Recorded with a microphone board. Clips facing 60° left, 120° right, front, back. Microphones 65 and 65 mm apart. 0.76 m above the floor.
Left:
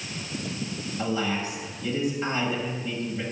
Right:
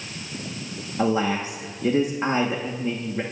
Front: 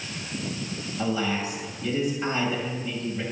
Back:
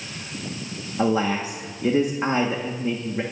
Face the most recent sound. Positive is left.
turn(degrees=-155)